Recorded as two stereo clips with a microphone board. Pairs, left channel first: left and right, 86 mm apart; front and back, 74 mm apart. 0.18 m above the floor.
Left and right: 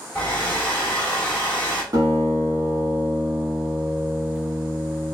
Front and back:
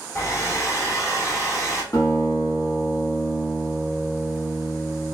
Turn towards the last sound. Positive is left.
turn(degrees=-40)